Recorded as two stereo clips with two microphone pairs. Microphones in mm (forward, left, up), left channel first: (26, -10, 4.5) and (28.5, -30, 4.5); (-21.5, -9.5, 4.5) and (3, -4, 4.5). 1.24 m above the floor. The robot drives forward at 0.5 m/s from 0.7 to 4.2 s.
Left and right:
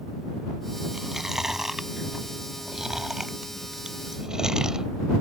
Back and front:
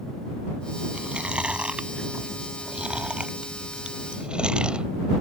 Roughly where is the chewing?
Ahead.